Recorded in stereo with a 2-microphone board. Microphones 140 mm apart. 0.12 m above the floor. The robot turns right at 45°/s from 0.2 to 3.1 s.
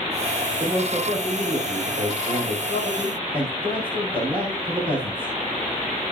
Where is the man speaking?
155° right, 5 m; by 5.3 s 45° right, 5 m.